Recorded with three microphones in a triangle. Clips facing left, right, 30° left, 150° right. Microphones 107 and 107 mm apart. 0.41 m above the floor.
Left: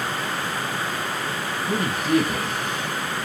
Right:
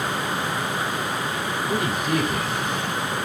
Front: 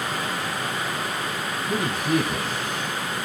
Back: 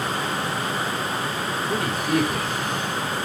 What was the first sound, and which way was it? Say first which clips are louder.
A man speaking: left 3 dB, front 1 dB; 75° left.